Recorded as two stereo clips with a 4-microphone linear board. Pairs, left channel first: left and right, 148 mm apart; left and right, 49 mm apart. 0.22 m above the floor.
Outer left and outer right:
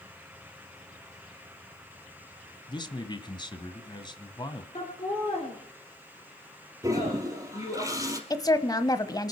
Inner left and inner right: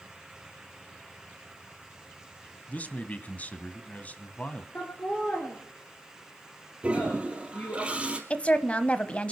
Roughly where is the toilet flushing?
Right.